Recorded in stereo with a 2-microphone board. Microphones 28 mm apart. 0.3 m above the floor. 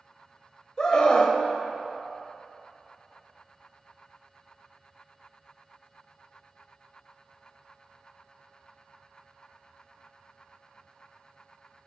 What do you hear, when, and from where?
0.8 s a scream: 25° left (ahead or behind), 1.0 m